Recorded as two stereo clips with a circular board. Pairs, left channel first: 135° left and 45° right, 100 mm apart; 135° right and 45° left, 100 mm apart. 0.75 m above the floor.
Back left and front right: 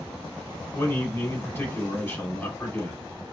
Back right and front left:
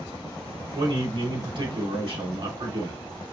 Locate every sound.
0.8 s a man speaking: 70° left, 2.5 m